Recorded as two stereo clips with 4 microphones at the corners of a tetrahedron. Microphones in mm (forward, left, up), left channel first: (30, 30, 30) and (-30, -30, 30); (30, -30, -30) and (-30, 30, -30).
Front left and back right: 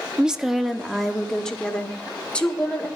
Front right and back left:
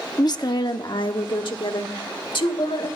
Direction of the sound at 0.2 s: 60° right.